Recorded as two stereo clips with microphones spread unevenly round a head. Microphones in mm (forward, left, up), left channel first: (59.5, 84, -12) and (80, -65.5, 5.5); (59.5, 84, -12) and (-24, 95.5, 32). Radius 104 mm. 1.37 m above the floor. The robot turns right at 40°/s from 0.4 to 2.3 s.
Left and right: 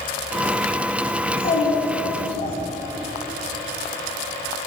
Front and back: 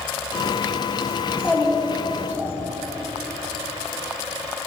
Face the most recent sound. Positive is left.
turn(degrees=110)